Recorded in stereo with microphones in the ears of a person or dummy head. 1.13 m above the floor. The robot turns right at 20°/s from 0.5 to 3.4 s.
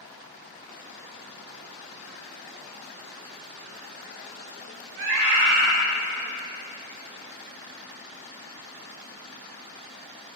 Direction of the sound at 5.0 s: 65° right (ahead or behind).